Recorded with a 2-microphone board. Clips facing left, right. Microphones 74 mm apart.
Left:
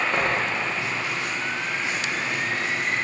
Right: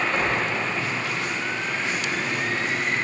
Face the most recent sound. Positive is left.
turn(degrees=25)  # may be behind; listen again after turning